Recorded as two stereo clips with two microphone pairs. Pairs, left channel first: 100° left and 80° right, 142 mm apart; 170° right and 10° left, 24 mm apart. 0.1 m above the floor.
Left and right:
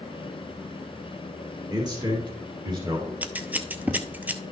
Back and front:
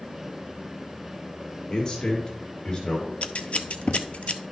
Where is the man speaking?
130° right, 2.0 m.